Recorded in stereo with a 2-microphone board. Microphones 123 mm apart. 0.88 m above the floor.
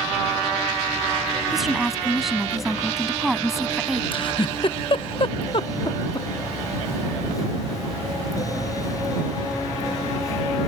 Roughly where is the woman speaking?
Centre.